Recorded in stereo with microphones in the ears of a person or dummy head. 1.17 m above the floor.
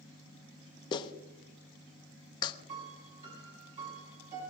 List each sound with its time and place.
0.9 s a clap: 30° left (ahead or behind), 1.0 m
2.7 s a piano: 30° right (ahead or behind), 7 m